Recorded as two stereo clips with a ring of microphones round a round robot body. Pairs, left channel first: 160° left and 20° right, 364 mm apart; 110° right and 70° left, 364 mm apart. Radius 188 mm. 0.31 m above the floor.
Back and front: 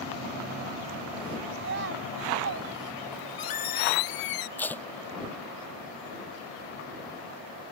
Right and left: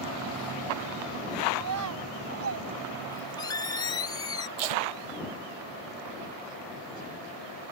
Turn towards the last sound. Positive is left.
turn(degrees=70)